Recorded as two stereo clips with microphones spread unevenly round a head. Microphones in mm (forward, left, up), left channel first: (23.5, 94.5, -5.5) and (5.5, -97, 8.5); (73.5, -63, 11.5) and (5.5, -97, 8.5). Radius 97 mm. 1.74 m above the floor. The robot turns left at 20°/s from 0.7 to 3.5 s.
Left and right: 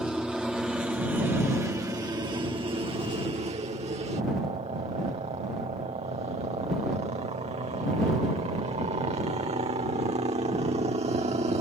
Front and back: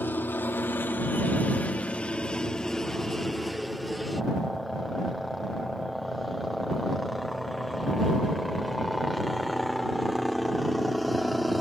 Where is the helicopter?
10° right; by 11.6 s 65° right.